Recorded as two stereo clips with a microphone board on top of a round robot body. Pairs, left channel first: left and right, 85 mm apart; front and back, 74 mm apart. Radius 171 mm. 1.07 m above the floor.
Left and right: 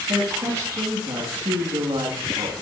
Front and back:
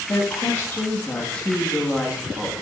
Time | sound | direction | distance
0.1 | a woman speaking | 50° right | 1.9 m